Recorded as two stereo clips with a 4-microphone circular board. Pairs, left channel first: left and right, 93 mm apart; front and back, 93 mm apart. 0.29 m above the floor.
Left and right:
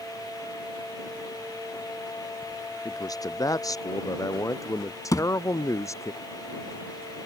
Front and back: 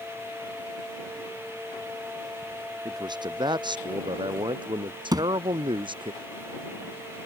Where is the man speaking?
140° left; by 6.1 s 150° left.